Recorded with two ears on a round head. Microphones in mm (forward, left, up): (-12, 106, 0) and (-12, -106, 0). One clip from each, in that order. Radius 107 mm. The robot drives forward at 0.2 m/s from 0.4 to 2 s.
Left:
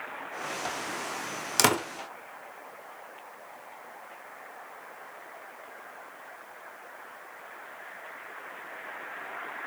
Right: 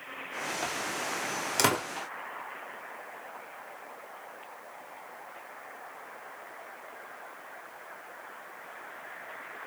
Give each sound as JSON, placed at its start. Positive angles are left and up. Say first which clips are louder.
{"t": 1.6, "sound": "a door slam", "louder": "left 3 dB", "side_deg": 15, "distance_m": 0.6}